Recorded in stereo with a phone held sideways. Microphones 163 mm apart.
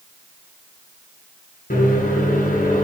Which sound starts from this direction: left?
A microwave, at 1.7 s.